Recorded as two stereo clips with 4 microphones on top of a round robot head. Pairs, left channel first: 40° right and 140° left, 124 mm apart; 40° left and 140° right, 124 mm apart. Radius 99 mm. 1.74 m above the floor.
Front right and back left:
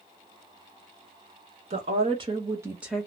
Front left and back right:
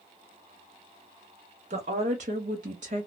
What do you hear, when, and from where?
1.7 s a woman speaking: straight behind, 1.0 m; by 3.1 s 115° right, 0.6 m